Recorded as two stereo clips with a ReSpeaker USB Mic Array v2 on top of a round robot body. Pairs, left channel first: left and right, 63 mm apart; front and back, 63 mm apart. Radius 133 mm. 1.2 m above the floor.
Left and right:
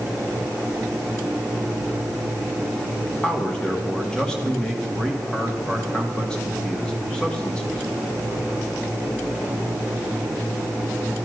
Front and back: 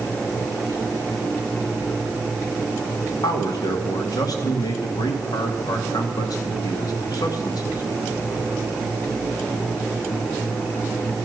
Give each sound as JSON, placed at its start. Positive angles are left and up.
{"t": 3.2, "sound": "a man speaking", "azimuth_deg": 10, "distance_m": 2.5}